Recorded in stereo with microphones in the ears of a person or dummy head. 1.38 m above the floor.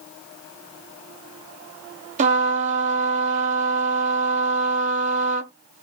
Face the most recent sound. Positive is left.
turn(degrees=-35)  # may be behind; listen again after turning